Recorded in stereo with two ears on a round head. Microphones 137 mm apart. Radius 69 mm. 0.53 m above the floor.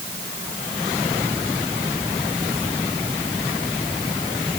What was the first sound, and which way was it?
Only background noise.